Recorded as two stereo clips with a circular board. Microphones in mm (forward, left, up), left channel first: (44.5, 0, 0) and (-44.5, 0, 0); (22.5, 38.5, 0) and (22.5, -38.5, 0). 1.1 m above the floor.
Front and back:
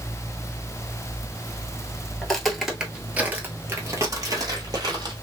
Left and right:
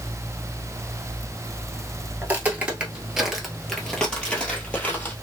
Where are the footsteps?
70° right, 1.1 m; by 5.1 s 155° left, 1.7 m.